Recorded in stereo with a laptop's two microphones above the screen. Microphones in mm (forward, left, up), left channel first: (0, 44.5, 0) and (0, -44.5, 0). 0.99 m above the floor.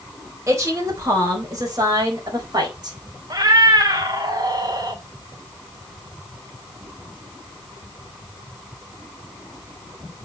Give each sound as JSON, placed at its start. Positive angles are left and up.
{"t": 0.5, "sound": "a woman speaking", "side_deg": -35, "distance_m": 4.5}
{"t": 3.3, "sound": "a cat meowing", "side_deg": -50, "distance_m": 1.7}